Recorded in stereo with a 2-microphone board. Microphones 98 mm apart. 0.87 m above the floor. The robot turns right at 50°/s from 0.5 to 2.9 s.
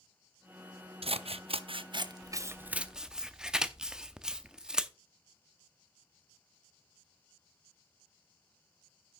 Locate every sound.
1.0 s scissors: 75° right (ahead or behind), 0.6 m; by 4.9 s 5° right (ahead or behind), 0.6 m